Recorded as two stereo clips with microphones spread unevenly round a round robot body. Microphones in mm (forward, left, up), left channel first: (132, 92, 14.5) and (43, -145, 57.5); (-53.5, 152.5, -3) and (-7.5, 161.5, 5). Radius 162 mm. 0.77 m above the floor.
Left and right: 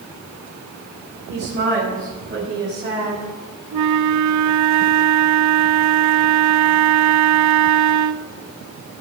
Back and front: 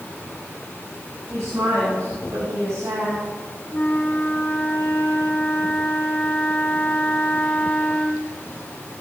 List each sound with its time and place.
1.3 s a woman speaking: 60° right, 5 m; by 3.2 s 50° right, 6 m
3.7 s a flute: 110° right, 0.5 m